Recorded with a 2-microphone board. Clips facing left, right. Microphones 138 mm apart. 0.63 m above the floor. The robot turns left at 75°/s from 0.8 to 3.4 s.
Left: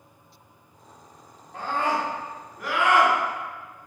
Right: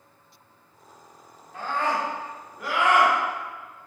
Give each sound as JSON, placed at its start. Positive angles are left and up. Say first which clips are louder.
{"t": 1.5, "sound": "a scream", "louder": "left 1 dB", "azimuth_deg": 80, "distance_m": 1.5}